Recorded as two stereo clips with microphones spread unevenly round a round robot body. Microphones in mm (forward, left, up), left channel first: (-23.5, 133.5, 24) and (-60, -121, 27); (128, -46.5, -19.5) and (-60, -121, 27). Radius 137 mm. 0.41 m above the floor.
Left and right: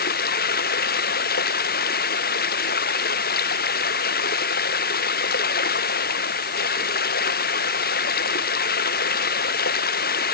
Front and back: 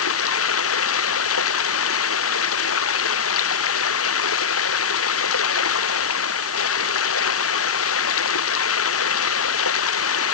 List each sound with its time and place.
0.0 s running water: 25° left